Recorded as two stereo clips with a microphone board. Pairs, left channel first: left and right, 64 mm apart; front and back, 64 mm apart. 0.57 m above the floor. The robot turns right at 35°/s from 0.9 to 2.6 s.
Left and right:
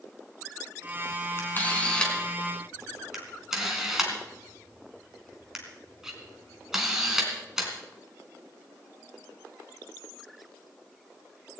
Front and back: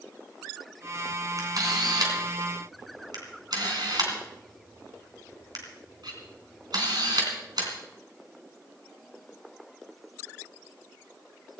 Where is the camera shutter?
145° left, 3.5 m; by 7.7 s 175° right, 3.5 m.